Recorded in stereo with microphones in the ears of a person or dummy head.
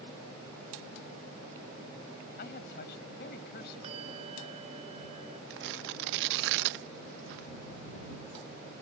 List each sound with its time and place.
2.4 s a man speaking: 60° left (ahead or behind)
3.8 s a bell: 35° right (ahead or behind)
5.5 s tearing paper: 60° right (ahead or behind)